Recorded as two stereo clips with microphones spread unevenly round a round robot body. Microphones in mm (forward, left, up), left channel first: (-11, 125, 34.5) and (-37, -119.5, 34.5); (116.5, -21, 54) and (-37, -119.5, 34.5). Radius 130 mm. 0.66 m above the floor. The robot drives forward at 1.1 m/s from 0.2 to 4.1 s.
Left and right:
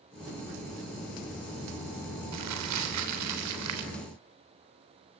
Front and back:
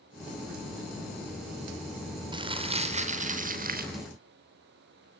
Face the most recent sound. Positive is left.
turn(degrees=-120)